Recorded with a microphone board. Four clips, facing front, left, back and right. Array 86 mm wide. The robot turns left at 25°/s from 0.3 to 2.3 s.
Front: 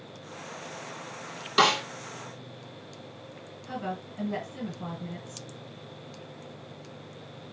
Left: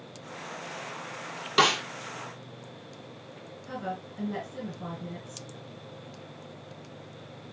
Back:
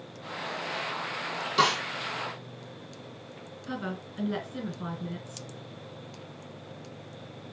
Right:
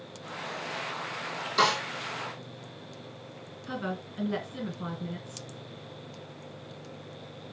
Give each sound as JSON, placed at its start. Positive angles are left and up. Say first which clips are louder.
{"t": 1.6, "sound": "a snare drum", "louder": "left 1 dB, front 2 dB", "azimuth_deg": 60, "distance_m": 1.0}
{"t": 3.6, "sound": "a woman speaking", "louder": "right 1 dB, front 1 dB", "azimuth_deg": -140, "distance_m": 1.8}